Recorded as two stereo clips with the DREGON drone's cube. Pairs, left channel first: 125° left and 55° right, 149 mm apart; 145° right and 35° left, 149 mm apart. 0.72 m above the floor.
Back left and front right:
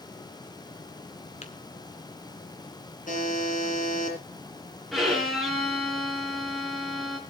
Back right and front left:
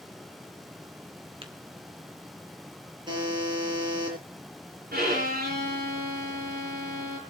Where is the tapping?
85° left, 1.9 m.